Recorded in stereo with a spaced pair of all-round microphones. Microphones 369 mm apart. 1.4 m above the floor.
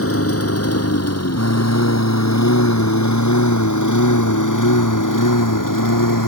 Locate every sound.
0.0 s a lawn mower: 35° left (ahead or behind); by 6.3 s 60° left (ahead or behind)